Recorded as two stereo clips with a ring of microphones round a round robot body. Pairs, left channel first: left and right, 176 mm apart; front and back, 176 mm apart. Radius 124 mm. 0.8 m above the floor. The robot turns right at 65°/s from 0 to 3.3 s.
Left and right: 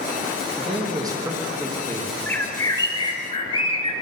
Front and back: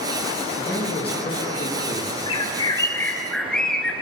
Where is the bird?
15° left, 0.5 m; by 3.9 s 85° left, 0.5 m.